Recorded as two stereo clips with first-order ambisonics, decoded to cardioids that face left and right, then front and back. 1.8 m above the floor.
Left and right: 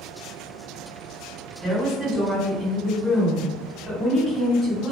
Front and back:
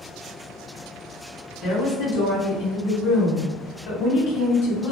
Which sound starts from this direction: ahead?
A woman speaking, at 1.6 s.